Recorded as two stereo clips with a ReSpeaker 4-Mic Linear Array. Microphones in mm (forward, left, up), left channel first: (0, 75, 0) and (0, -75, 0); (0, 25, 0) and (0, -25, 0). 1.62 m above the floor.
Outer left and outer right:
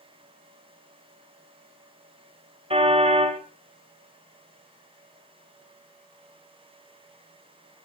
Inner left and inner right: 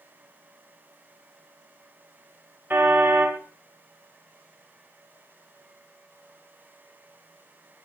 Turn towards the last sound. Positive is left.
turn(degrees=-40)  # may be behind; listen again after turning